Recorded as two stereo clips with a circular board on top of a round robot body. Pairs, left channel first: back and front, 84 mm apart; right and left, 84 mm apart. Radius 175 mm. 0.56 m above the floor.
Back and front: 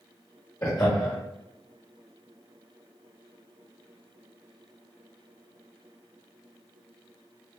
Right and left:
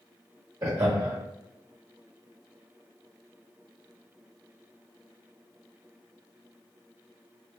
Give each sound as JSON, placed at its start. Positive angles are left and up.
{"t": 0.6, "sound": "laughter", "azimuth_deg": 130, "distance_m": 1.0}